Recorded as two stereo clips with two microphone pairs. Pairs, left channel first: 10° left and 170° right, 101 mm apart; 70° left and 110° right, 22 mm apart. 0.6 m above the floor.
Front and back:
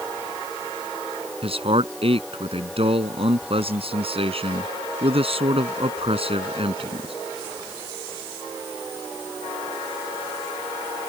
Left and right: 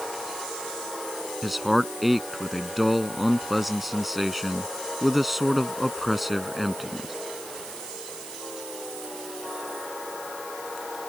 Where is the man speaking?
165° left.